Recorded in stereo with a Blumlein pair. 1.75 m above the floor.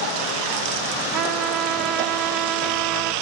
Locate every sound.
1.1 s a trumpet: 35° right